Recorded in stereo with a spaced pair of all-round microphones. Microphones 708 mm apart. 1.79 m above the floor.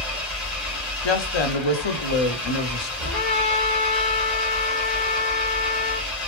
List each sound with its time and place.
0.0 s an engine running: centre (ahead or behind), 1.4 m
1.0 s a woman speaking: 45° left (ahead or behind), 0.6 m
3.0 s a trumpet: 15° right (ahead or behind), 1.3 m